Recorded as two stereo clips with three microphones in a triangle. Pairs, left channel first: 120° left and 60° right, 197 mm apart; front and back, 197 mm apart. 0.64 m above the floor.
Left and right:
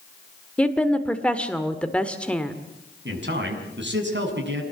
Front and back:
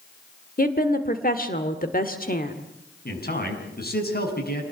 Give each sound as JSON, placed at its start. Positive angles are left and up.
{"t": 0.6, "sound": "a woman speaking", "azimuth_deg": 35, "distance_m": 1.7}
{"t": 3.0, "sound": "a man speaking", "azimuth_deg": -40, "distance_m": 7.0}